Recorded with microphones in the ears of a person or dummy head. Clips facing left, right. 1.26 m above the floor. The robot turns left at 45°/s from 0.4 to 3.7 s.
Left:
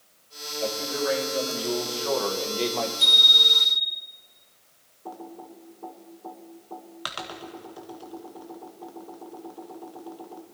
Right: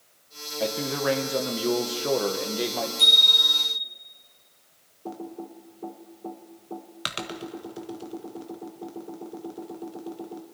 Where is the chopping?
No chopping in this recording.